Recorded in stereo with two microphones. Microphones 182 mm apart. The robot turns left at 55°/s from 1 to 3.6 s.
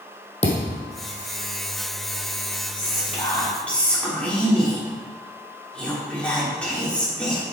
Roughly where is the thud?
Left.